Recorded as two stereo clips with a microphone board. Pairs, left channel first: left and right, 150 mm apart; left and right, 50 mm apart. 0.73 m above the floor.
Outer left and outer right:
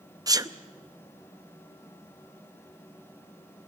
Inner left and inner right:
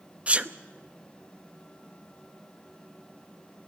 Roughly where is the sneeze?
Right.